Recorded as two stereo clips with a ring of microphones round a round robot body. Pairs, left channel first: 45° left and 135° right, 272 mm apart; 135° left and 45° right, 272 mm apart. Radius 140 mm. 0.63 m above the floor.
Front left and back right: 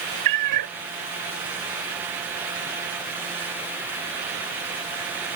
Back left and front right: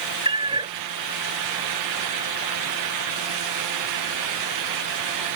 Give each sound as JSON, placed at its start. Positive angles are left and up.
{"t": 0.2, "sound": "a cat meowing", "azimuth_deg": -120}